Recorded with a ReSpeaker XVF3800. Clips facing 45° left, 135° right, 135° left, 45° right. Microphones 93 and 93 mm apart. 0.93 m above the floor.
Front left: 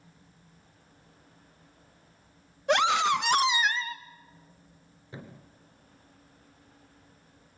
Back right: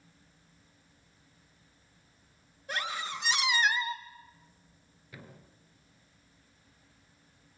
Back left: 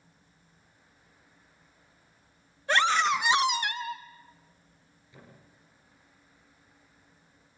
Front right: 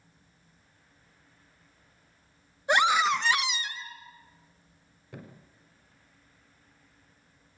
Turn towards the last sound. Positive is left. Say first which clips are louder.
# front left 5 dB, front right 7 dB
turn(degrees=-15)